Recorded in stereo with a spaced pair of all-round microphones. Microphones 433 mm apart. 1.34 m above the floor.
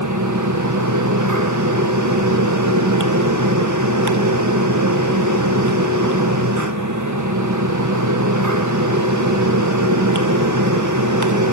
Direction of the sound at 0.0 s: 40° right (ahead or behind).